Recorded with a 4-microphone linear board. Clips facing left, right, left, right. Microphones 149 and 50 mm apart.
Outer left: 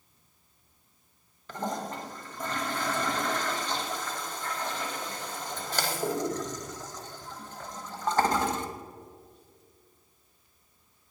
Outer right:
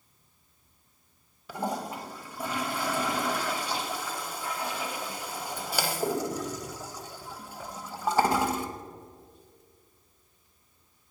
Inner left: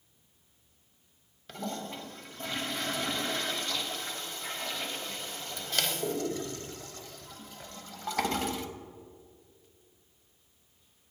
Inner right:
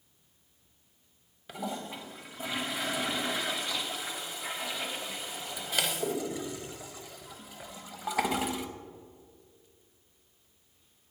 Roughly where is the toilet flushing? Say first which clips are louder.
Outer right 1 dB, inner right 1 dB; centre.